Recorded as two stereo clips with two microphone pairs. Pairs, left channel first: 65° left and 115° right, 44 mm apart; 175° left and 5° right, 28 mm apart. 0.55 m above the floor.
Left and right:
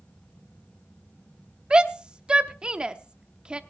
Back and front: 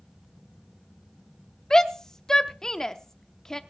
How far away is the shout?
About 0.7 m.